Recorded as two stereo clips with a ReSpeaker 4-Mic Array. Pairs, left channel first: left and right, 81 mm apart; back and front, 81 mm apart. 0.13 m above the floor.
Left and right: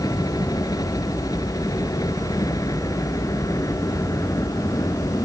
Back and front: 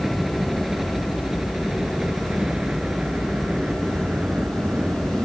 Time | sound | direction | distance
0.0 | a helicopter | 85° left | ?